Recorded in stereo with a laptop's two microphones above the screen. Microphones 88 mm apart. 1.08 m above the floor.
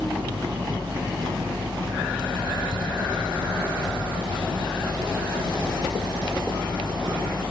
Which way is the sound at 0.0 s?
70° right (ahead or behind).